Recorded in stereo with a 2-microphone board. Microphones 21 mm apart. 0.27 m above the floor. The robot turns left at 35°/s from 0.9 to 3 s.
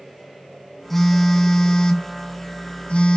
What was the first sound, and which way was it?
A phone buzzing, 165° left.